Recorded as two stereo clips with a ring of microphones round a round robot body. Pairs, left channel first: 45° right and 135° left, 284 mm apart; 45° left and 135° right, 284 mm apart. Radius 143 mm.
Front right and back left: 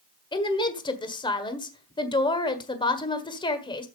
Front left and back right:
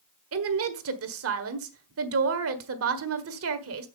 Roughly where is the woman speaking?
Behind right.